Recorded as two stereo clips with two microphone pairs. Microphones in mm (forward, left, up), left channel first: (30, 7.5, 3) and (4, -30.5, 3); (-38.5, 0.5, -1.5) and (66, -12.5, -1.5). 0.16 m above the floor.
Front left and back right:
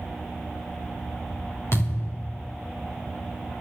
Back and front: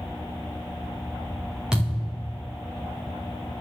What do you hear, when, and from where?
1.7 s a thud: 75° left, 5 m